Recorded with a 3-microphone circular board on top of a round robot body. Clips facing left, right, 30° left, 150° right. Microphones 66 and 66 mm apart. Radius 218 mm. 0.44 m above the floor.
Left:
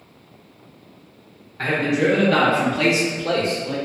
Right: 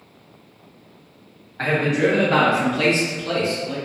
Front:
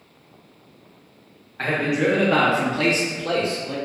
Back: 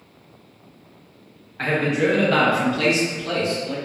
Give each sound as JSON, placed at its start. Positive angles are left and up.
{"t": 1.6, "sound": "a man speaking", "azimuth_deg": -55, "distance_m": 1.5}